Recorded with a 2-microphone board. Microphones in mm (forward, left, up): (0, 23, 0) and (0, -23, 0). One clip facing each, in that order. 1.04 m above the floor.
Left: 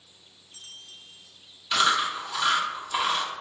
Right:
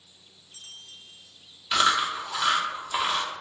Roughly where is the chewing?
Centre.